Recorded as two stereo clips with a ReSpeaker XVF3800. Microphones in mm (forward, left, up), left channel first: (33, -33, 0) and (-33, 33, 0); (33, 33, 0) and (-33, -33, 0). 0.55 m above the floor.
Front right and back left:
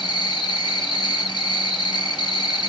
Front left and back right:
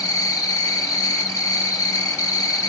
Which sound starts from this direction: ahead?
An insect, at 0.0 s.